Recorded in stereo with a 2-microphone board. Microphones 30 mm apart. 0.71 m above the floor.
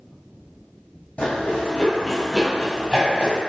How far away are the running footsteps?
About 1.1 m.